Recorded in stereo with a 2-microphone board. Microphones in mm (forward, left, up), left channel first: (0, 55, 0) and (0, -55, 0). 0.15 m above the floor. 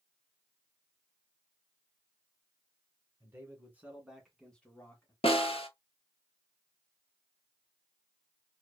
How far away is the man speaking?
About 1.4 m.